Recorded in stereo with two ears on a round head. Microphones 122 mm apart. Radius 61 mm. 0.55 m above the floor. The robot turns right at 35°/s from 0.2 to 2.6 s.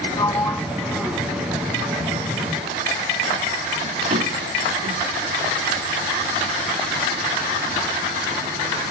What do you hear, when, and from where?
0.2 s a sliding door: 25° left (ahead or behind); by 5.1 s 50° right (ahead or behind)